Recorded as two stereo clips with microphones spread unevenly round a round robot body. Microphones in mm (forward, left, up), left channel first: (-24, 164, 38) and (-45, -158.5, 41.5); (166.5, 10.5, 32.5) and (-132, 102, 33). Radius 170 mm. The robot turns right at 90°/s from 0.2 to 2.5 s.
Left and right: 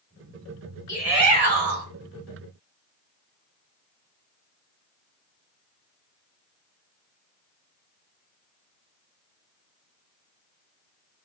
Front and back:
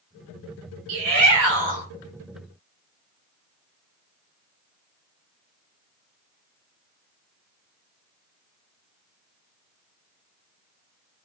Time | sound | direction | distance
0.9 | a shout | 165° left | 3 m